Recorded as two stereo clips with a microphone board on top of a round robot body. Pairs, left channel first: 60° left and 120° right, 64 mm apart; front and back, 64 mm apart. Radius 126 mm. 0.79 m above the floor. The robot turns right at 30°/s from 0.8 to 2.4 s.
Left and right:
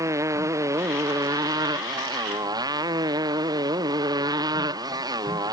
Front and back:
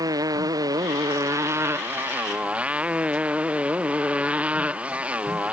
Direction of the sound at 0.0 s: 155° right.